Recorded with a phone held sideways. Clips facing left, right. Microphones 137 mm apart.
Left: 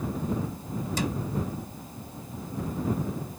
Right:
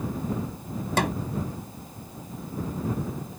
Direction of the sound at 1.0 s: 65° right (ahead or behind).